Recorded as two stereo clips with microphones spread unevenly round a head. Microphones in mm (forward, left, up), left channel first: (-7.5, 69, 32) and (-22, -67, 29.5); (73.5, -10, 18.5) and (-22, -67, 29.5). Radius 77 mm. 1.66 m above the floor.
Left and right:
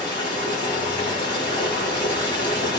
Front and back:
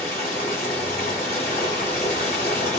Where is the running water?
30° left, 1.6 m.